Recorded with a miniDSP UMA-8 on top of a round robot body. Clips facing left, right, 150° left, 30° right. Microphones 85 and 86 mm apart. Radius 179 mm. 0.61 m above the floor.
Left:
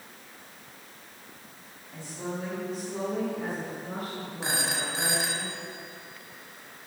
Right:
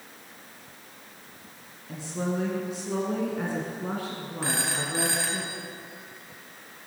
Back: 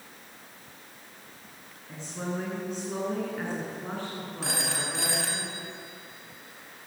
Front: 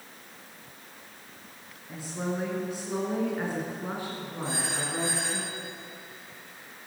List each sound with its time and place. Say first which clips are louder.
1.9 s a woman speaking: right 5 dB, front 2 dB; 115° right, 9.5 m; by 5.4 s 100° right, 8.5 m
4.4 s a phone ringing: right 1 dB, even; 160° left, 3.5 m